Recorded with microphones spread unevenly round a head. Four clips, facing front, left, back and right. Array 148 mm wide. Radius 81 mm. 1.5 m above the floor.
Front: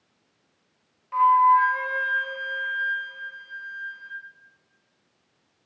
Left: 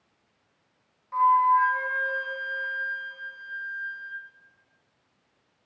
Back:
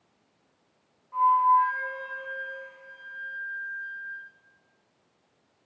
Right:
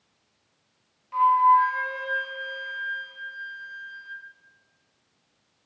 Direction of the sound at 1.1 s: 10° left.